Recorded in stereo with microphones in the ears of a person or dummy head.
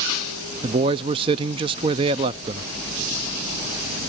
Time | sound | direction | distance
0.6 | a man speaking | 30° right (ahead or behind) | 0.5 m